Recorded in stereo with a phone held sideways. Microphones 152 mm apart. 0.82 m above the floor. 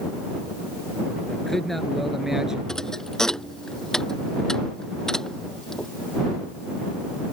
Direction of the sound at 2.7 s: 5° left (ahead or behind).